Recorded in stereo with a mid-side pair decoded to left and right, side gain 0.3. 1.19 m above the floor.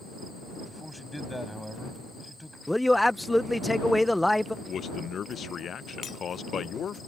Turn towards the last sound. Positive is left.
turn(degrees=70)